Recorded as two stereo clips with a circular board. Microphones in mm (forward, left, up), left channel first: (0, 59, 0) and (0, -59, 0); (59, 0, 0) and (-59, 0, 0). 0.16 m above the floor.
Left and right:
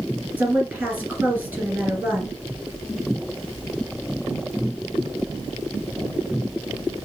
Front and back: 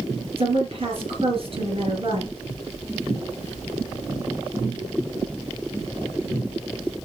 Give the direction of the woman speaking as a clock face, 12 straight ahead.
5 o'clock.